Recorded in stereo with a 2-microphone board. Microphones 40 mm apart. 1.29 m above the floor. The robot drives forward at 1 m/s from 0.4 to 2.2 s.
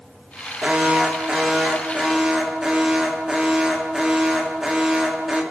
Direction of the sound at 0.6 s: 30° right (ahead or behind).